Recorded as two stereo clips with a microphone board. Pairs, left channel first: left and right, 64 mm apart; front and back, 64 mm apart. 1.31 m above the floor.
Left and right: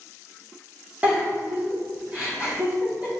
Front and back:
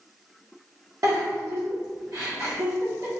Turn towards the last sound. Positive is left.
turn(degrees=-155)